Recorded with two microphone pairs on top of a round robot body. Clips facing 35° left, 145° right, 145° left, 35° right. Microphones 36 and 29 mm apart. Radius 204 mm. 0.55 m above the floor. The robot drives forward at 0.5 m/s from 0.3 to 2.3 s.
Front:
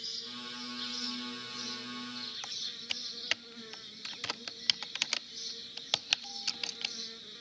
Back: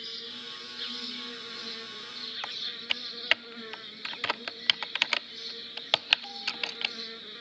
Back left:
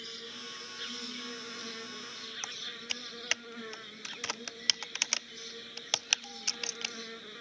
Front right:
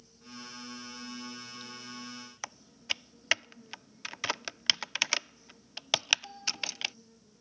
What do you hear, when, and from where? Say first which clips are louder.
0.0 s an insect: back 3 dB, back left 6 dB; 155° left
2.4 s typing on a keyboard: back 9 dB, front right 4 dB; 100° right